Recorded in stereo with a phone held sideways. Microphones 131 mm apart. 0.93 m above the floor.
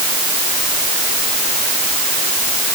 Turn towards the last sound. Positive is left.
No sound to turn to.